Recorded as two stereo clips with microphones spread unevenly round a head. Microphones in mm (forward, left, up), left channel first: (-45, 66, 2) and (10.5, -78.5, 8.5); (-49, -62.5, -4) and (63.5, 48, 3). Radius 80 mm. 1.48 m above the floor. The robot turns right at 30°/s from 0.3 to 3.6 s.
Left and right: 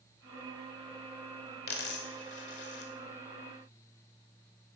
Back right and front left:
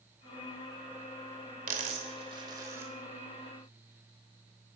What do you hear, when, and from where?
1.7 s a dropped coin: 85° left, 2.5 m; by 2.9 s 120° left, 2.5 m